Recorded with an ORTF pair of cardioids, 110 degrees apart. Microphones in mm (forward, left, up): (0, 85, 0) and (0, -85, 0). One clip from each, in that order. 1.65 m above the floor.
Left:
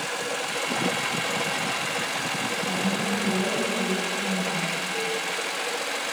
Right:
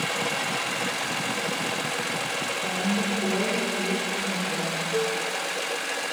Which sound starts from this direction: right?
A cowbell, at 4.9 s.